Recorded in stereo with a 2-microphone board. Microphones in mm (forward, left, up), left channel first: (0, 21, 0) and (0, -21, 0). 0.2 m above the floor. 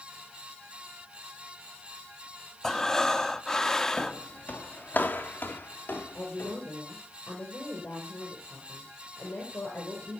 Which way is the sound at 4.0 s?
35° left (ahead or behind).